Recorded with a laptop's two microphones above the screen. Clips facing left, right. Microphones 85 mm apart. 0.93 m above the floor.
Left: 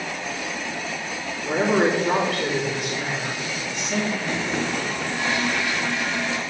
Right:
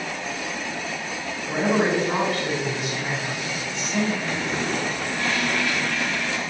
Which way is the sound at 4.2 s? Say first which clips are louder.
Left 1 dB; 20° left (ahead or behind).